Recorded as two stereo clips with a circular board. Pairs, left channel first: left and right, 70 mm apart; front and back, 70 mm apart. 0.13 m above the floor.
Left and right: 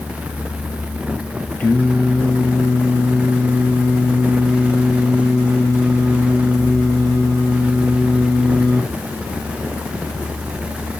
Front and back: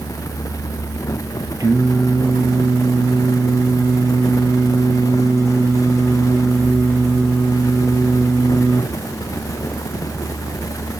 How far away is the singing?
About 4 m.